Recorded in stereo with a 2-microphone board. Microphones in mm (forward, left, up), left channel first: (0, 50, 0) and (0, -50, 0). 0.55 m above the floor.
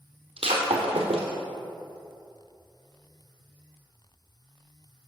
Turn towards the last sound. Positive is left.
turn(degrees=-75)  # may be behind; listen again after turning